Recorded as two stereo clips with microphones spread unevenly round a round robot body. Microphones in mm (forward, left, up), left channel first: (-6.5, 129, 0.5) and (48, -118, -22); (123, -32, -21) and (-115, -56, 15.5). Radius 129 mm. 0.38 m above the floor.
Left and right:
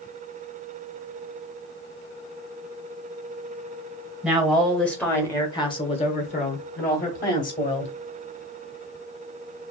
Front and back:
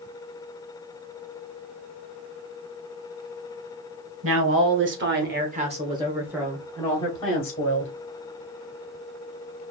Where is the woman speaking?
160° right, 1.9 m; by 7.9 s 50° left, 2 m.